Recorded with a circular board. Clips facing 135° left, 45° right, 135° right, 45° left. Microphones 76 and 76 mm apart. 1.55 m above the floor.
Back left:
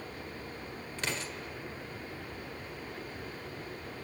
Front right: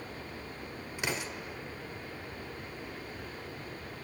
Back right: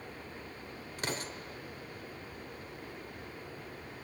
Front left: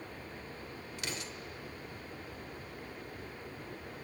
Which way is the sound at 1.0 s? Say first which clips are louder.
Front right 2 dB, back right 5 dB; 115° right.